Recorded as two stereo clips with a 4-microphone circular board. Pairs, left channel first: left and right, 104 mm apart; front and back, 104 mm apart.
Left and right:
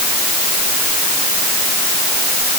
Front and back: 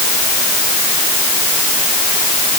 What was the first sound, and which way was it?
Only background noise.